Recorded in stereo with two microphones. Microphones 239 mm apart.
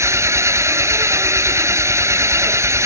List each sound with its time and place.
0.0 s an engine running: 10° right (ahead or behind)